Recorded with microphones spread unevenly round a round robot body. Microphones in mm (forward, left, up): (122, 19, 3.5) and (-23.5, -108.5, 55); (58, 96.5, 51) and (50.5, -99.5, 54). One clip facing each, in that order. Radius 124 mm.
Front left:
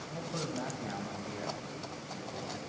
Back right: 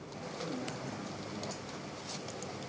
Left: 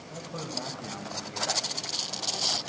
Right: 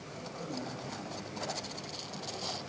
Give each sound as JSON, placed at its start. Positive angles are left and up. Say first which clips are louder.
{"t": 0.1, "sound": "a man speaking", "louder": "front left 2 dB, left 3 dB", "azimuth_deg": 65, "distance_m": 3.5}